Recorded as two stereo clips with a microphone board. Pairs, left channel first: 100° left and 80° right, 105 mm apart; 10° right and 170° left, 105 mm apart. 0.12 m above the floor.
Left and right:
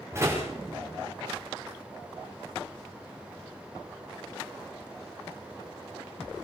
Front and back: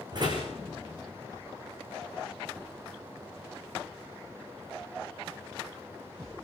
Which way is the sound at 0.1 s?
145° right.